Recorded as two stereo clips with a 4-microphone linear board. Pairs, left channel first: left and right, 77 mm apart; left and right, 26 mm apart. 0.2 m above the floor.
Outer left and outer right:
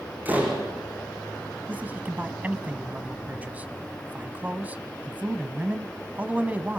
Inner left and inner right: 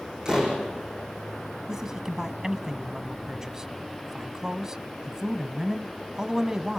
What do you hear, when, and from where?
0.2 s a door slam: 25° right (ahead or behind), 6.5 m
1.7 s a man speaking: 20° right (ahead or behind), 1.3 m